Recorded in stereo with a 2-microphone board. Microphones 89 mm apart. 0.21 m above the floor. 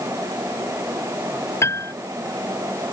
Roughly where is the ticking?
No ticking in this recording.